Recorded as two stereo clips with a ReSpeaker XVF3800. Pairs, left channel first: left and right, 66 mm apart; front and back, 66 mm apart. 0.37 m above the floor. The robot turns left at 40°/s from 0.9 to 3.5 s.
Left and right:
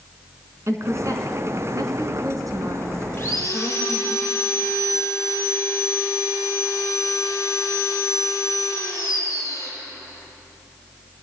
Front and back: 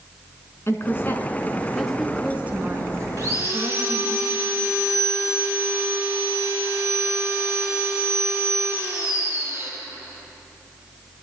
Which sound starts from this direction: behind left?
Sawing, at 3.2 s.